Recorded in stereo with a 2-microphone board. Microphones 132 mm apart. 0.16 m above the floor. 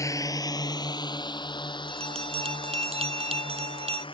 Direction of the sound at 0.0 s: 25° left (ahead or behind).